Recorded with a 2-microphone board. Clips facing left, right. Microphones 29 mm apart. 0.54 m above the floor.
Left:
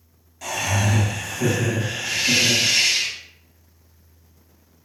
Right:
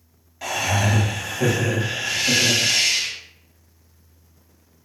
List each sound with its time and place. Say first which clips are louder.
0.4 s laughter: right 2 dB; 20° right (ahead or behind), 0.7 m
2.0 s a hiss: left 1 dB; 30° left (ahead or behind), 0.7 m